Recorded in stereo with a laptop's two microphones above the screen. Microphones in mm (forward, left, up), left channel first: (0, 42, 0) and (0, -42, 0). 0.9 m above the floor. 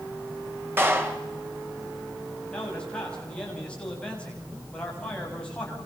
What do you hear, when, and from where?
0.8 s a clap: 25° right (ahead or behind), 3.5 m
2.5 s a man speaking: 10° left (ahead or behind), 7 m